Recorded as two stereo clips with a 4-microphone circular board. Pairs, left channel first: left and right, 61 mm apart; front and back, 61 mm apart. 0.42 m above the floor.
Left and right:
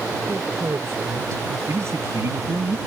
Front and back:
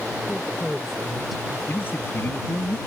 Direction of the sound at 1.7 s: 50° right.